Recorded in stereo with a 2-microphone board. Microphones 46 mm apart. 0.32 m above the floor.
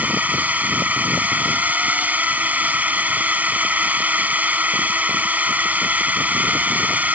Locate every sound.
0.0 s a drone: 35° right (ahead or behind)